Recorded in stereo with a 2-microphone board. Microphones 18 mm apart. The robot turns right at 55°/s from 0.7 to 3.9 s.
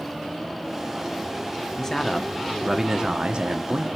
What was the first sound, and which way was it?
A man speaking, 150° left.